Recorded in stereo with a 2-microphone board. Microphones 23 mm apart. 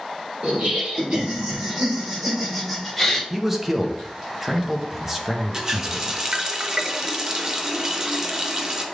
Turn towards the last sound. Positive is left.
turn(degrees=-25)  # may be behind; listen again after turning